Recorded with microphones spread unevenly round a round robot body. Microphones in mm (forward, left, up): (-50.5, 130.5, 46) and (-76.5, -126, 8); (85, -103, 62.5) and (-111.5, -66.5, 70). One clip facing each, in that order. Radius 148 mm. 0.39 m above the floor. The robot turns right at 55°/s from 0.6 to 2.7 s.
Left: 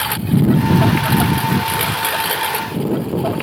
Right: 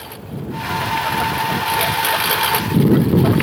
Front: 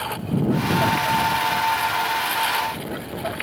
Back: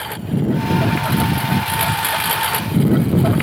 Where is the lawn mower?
90° left; by 3.5 s 155° right.